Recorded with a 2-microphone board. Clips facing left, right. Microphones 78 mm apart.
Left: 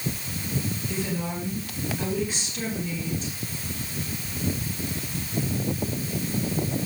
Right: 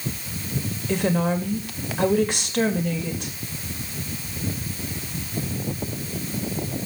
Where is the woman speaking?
65° right (ahead or behind), 2.5 m.